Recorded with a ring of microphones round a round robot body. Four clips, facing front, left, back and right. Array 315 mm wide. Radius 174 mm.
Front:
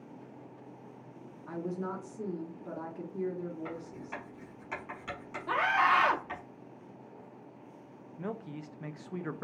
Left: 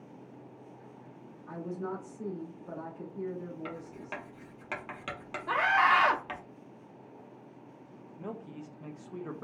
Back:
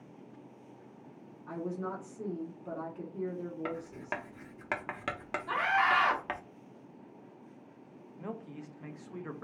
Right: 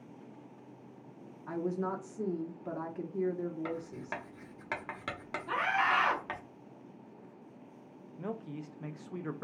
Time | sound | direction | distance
1.5 | a woman speaking | 80° right | 1.3 m
3.6 | writing | 170° right | 1.0 m
5.5 | a scream | 55° left | 1.2 m
8.2 | a man speaking | 20° right | 0.7 m